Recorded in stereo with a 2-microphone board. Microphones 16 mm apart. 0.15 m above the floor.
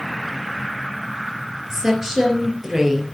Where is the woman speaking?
30° right (ahead or behind), 3.5 m.